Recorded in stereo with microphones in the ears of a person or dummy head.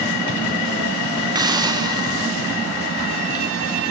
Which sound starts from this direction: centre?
A hiss, at 1.4 s.